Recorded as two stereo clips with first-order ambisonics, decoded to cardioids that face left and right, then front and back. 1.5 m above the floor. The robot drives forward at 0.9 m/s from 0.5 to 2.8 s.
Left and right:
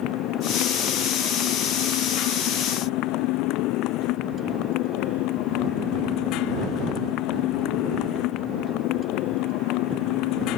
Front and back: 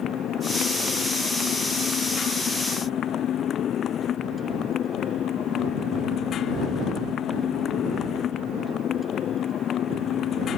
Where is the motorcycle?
55° left; by 10.6 s 60° left.